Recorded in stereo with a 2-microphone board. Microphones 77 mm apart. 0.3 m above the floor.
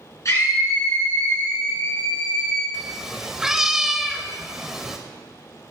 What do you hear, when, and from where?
0.2 s a scream: 45° left (ahead or behind), 3 m; by 2.6 s 75° left (ahead or behind), 5 m
2.7 s a cat meowing: 5° right (ahead or behind), 0.6 m